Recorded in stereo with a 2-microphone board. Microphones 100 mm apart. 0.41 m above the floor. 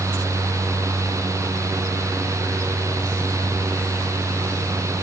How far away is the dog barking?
I don't hear a dog barking.